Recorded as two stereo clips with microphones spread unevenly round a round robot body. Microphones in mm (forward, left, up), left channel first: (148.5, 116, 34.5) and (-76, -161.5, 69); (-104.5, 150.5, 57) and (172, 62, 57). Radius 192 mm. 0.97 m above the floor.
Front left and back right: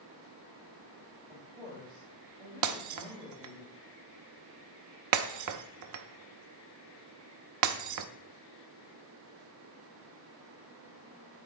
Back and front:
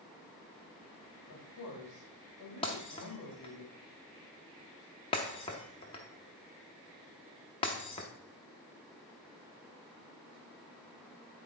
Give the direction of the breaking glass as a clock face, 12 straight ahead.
4 o'clock.